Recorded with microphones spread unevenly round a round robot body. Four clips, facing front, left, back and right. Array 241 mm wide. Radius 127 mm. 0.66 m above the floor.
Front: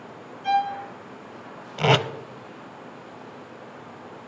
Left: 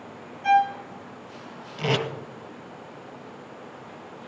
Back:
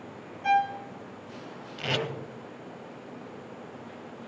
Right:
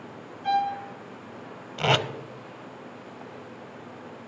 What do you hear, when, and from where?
0.4 s a violin: 155° left, 1.0 m
1.8 s tape being pulled: 10° right, 0.7 m